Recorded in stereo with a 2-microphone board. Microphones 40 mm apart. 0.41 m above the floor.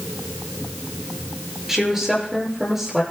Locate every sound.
1.7 s a woman speaking: 10° right (ahead or behind), 7 m